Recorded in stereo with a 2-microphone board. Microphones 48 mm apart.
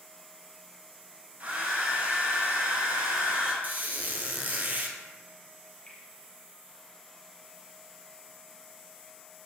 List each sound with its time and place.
1.4 s a hair dryer: 40° right (ahead or behind), 1.8 m
3.6 s a squeak: 35° right (ahead or behind), 1.0 m
5.9 s a finger snap: 25° left (ahead or behind), 2.0 m